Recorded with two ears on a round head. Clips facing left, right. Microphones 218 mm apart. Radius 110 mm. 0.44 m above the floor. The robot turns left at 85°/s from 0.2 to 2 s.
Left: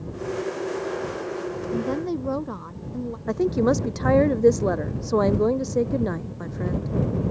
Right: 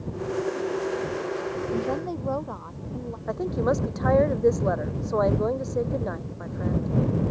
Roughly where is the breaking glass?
I don't hear breaking glass.